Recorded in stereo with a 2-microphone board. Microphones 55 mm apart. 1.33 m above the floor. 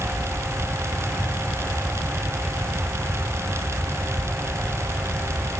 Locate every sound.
Only background noise.